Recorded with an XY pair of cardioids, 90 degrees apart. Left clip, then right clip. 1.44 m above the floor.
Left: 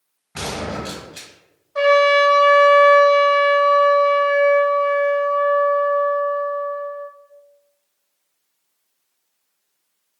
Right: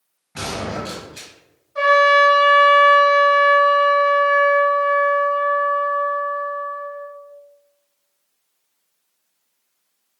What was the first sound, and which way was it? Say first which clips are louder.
A gunshot: even; 40° left.